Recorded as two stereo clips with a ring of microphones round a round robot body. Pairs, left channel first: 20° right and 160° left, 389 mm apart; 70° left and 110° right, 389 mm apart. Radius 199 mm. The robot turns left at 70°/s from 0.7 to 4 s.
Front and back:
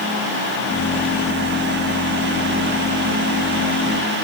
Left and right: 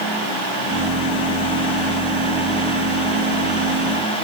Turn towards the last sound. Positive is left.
No sound to turn to.